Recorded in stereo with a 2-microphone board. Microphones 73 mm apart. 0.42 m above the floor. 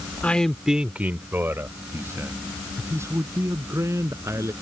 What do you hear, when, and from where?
0.2 s a man speaking: 20° left (ahead or behind); by 4.5 s 40° right (ahead or behind)